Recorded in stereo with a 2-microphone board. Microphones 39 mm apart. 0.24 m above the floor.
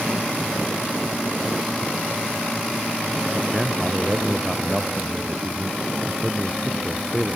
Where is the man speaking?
10° right (ahead or behind).